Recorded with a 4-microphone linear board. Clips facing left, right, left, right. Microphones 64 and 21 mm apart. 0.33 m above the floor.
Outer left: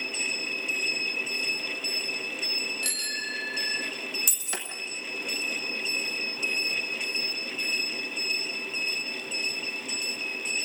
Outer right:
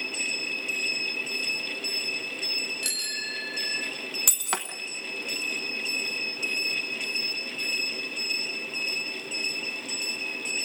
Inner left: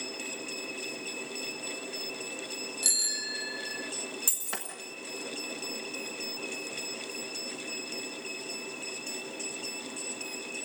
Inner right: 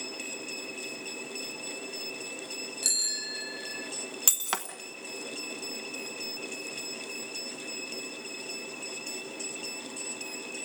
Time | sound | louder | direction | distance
2.8 | a bicycle bell | outer left 1 dB, even | centre (ahead or behind) | 2.5 m
4.3 | breaking glass | outer right 5 dB, inner right 8 dB | 70° right (ahead or behind) | 1.4 m